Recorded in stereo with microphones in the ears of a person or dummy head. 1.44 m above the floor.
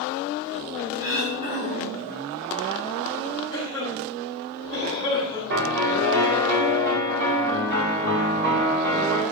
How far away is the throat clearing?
About 8 m.